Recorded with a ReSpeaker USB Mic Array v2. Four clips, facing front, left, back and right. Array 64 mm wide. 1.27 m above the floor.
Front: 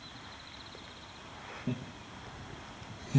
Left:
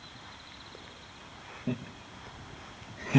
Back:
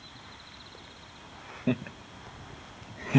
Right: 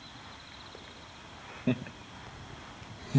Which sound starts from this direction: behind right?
Laughter, at 1.7 s.